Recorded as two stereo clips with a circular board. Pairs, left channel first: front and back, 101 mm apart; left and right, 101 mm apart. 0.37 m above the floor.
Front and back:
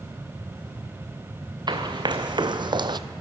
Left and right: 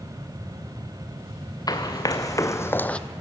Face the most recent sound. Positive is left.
turn(degrees=165)